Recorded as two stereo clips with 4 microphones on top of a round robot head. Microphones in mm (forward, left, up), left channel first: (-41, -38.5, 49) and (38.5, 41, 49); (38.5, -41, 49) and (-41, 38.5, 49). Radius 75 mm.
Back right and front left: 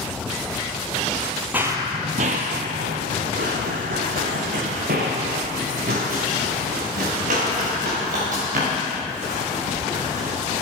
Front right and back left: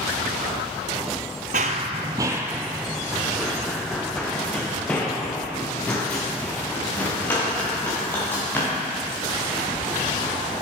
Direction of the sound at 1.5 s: 120° left.